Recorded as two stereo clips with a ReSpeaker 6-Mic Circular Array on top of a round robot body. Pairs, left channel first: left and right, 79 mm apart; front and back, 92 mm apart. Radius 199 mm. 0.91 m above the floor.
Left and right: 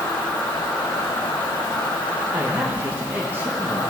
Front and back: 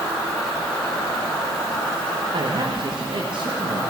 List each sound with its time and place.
0.0 s an insect: 75° left, 4 m
2.3 s a man speaking: 155° right, 1.6 m